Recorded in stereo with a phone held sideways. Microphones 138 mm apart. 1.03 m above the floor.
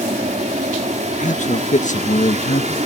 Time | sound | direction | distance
0.0 | an aircraft | 55° right (ahead or behind) | ?
1.2 | a man speaking | 60° left (ahead or behind) | ?